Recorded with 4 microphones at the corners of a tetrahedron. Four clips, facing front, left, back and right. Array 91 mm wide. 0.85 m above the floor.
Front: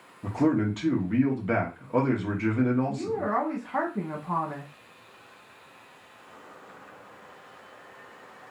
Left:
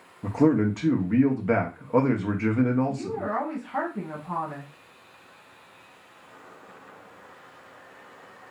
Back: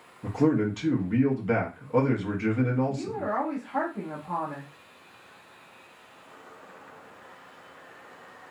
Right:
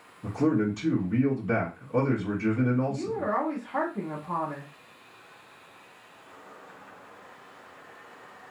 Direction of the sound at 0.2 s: 85° left.